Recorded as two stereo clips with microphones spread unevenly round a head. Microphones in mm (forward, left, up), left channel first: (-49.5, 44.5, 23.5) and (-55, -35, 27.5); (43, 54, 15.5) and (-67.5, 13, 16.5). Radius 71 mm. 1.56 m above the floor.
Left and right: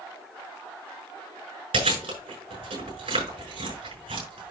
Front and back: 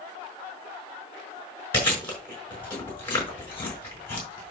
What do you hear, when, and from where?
1.7 s chewing: 55° right, 5.5 m